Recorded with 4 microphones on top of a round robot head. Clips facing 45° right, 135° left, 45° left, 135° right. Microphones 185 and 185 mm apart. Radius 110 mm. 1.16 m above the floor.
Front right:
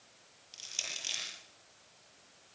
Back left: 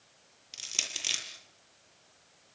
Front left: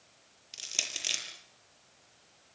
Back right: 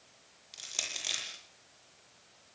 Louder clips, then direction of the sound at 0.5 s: Back left 4 dB, front left 1 dB; 105° left.